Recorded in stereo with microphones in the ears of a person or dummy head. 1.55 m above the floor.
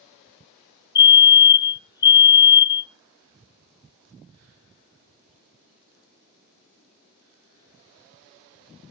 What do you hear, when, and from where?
0.9 s a fire alarm: 20° left (ahead or behind), 0.6 m